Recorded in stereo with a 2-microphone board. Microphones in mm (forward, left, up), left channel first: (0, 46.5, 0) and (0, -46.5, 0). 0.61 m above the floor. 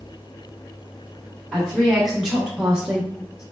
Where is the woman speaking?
5° right (ahead or behind), 1.0 m.